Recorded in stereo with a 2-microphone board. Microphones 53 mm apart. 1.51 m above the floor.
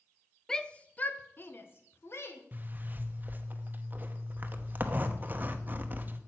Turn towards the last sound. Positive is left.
turn(degrees=-35)  # may be behind; listen again after turning